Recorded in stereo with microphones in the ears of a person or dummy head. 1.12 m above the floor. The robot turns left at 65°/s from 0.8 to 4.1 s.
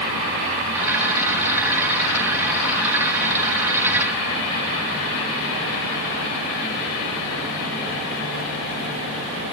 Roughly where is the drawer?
I don't hear a drawer.